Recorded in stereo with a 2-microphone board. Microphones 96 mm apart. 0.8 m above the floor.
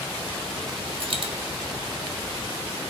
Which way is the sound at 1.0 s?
60° right (ahead or behind).